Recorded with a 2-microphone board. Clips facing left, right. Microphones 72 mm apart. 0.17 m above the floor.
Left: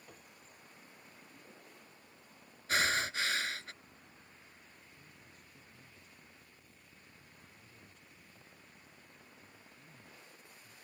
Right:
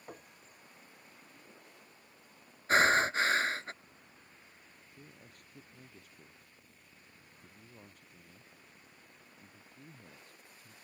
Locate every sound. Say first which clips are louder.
0.1 s a piano: right 10 dB; 45° right (ahead or behind)
2.7 s breathing: right 7 dB; 40° right (ahead or behind)
5.0 s a man speaking: right 3 dB; 65° right (ahead or behind)